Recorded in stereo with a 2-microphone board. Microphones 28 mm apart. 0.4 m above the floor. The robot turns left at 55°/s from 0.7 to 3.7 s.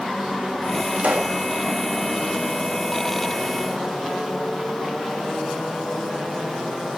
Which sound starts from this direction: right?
A pop, at 1.0 s.